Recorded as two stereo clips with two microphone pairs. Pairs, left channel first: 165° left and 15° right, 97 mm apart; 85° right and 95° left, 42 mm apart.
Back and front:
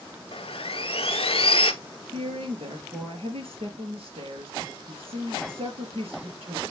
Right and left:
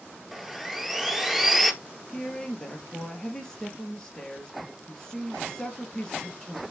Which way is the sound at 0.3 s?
175° right.